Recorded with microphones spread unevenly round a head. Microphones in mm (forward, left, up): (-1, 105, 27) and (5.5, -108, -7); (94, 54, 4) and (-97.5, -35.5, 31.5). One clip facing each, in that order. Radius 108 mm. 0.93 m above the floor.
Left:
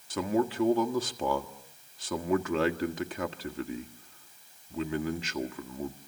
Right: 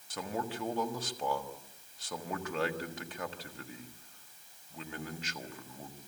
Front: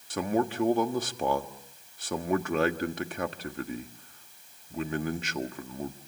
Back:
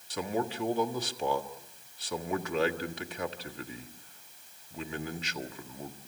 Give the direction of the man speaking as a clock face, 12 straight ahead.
10 o'clock.